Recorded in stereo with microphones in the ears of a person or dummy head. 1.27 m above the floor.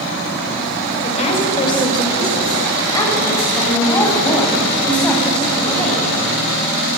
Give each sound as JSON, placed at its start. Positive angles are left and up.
{"t": 1.0, "sound": "a woman speaking", "side_deg": 35, "distance_m": 5.5}